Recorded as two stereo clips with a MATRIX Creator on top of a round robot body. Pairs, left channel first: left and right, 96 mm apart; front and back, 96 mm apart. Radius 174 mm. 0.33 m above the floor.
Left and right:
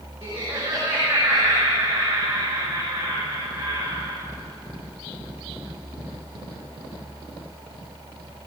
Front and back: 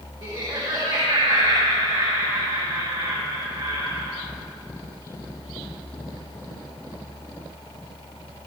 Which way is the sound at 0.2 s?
155° right.